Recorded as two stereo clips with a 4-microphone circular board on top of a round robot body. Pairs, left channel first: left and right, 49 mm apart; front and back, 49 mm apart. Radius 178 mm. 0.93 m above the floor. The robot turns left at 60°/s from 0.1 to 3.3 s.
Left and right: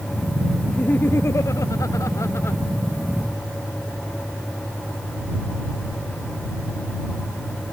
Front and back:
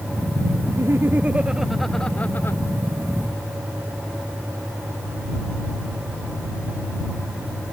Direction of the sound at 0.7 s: 155° left.